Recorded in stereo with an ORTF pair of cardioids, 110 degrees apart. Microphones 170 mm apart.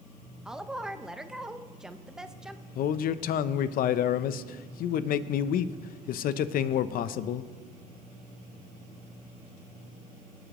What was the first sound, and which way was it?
A woman speaking, 5° right.